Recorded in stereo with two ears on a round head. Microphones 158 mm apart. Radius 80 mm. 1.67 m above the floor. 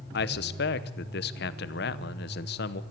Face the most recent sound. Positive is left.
turn(degrees=65)  # may be behind; listen again after turning